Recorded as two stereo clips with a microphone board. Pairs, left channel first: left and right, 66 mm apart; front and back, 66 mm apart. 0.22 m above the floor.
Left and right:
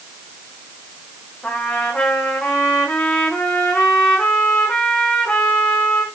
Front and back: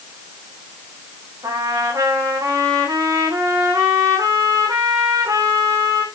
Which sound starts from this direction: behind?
A trumpet, at 1.4 s.